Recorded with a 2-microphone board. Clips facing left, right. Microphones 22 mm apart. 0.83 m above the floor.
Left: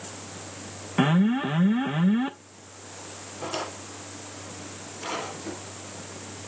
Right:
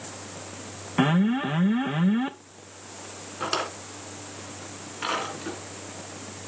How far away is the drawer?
About 3 m.